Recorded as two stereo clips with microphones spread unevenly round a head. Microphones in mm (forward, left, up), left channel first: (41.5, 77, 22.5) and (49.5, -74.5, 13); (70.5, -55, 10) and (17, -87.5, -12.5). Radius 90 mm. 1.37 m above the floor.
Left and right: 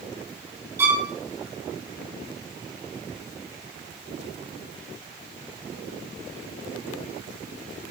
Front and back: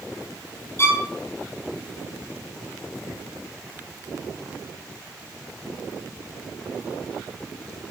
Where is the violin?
15° right, 5 m.